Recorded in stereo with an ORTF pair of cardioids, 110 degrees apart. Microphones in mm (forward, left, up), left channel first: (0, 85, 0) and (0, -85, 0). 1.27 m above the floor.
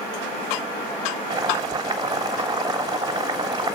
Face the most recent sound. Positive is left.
turn(degrees=-25)